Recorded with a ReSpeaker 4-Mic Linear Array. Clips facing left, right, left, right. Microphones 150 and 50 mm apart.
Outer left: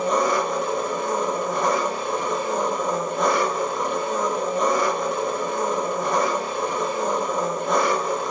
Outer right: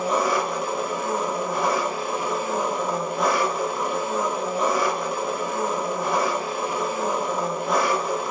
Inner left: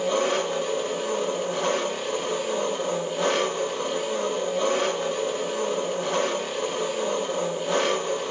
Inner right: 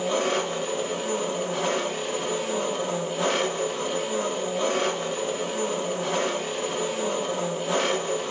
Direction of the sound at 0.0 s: 5° right (ahead or behind).